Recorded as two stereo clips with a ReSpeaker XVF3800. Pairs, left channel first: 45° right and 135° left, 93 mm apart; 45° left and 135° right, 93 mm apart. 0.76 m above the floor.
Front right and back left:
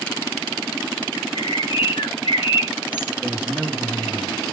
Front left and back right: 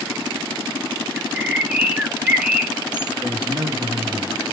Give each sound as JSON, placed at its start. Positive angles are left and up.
{"t": 1.2, "sound": "a bird", "azimuth_deg": -55, "distance_m": 0.6}
{"t": 3.2, "sound": "a man speaking", "azimuth_deg": -150, "distance_m": 1.5}